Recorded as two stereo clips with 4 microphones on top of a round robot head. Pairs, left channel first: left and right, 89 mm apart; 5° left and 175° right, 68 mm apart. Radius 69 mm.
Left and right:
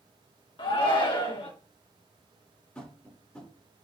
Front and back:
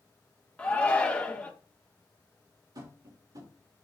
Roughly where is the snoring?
No snoring in this recording.